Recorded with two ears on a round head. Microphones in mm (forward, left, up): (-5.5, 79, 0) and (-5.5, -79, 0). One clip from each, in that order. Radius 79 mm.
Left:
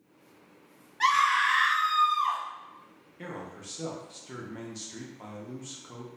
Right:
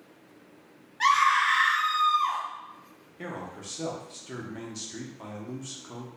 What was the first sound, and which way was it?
A scream, 5° left (ahead or behind).